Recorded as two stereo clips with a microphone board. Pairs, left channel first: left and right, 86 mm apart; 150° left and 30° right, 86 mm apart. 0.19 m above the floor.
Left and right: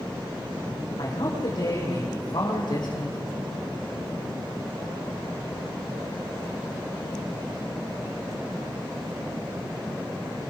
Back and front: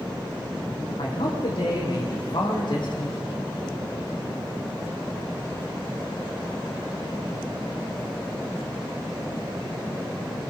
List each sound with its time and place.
1.0 s a man speaking: 130° left, 9 m; by 3.2 s 120° left, 8 m